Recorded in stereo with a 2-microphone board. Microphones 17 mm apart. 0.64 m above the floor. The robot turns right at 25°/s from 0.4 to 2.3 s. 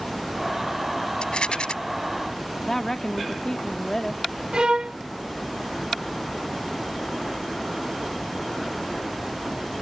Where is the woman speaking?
30° left (ahead or behind).